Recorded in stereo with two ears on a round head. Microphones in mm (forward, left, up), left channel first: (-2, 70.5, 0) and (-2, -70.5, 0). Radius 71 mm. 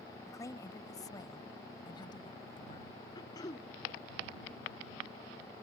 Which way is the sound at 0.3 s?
20° left (ahead or behind).